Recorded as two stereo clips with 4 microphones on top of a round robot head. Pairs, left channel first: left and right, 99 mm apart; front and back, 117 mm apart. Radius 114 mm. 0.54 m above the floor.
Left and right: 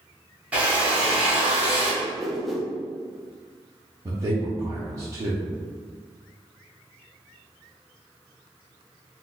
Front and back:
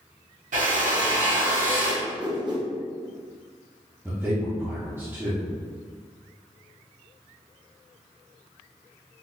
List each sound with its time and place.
0.5 s a drill: 165° right, 1.2 m
2.0 s a whoosh: straight behind, 0.9 m
4.0 s a man speaking: 125° right, 0.8 m